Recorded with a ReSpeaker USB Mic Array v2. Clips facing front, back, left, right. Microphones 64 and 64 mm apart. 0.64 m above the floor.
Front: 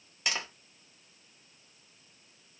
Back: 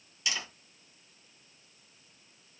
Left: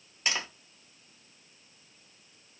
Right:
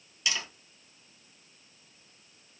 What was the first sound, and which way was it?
Tapping, 40° left.